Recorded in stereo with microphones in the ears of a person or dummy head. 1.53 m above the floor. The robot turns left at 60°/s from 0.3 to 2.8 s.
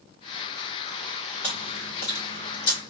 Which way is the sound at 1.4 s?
15° left (ahead or behind).